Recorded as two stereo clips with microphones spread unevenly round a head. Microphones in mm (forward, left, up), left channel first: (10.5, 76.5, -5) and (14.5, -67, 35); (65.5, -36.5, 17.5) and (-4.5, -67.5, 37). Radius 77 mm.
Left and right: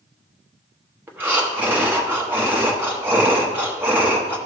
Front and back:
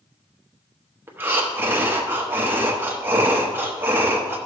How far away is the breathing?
About 0.9 m.